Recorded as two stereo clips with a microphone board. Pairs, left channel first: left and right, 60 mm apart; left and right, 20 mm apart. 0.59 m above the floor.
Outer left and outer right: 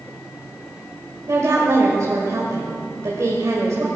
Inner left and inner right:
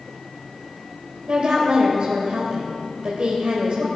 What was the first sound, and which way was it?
A woman speaking, 65° right (ahead or behind).